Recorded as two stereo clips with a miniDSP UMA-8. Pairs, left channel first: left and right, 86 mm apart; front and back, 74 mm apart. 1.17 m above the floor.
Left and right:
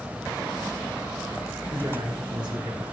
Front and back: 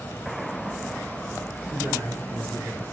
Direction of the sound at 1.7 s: 130° right.